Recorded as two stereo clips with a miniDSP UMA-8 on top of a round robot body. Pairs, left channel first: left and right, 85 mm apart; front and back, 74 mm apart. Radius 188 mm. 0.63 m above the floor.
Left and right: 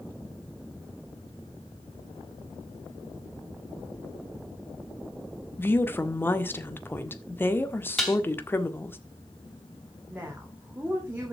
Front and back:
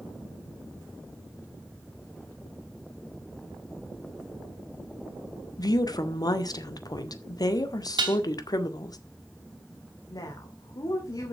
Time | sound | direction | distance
5.6 | a woman speaking | 25° left | 1.9 m
8.0 | dishes clattering | 175° left | 3.5 m
10.1 | a woman speaking | 20° right | 3 m